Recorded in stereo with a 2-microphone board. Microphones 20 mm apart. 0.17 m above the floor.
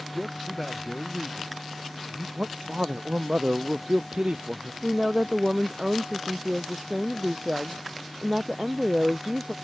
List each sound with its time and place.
0.1 s a man speaking: 10° left (ahead or behind)
2.4 s a man speaking: 75° right (ahead or behind)
4.8 s a woman speaking: 45° right (ahead or behind)